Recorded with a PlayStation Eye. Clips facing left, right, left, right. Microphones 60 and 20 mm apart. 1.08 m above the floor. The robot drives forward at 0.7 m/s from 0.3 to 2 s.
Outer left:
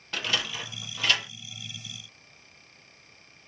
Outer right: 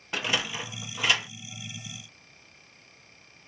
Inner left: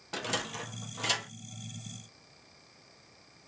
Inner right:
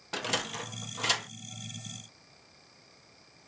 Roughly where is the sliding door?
Centre.